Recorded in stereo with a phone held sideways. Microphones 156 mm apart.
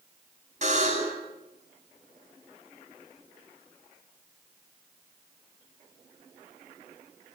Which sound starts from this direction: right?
A buzzer, at 0.6 s.